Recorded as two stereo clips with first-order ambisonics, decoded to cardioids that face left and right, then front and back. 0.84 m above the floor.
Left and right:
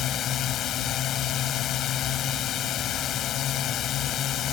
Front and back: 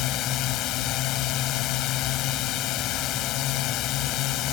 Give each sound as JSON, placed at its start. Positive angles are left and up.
{"t": 0.0, "sound": "a drone", "azimuth_deg": 40}